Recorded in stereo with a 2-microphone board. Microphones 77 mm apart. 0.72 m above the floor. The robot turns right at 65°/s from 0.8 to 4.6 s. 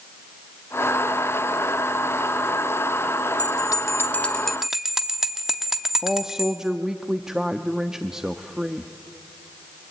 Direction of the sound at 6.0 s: 5° right (ahead or behind).